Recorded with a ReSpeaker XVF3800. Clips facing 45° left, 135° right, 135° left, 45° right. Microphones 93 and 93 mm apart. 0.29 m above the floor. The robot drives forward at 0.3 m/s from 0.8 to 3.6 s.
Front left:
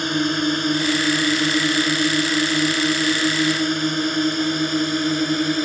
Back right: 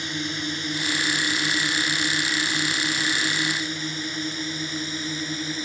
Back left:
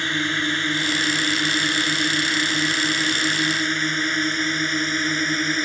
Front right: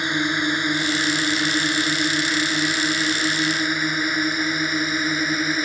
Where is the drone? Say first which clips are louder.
Front left 10 dB, front right 2 dB; 25° left; by 5.7 s 35° left.